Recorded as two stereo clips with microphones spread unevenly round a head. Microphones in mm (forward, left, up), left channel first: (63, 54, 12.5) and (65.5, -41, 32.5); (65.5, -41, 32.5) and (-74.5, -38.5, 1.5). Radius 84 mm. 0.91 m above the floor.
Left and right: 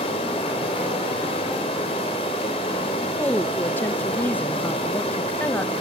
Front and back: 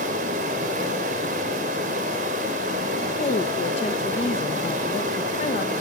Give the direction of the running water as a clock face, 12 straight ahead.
7 o'clock.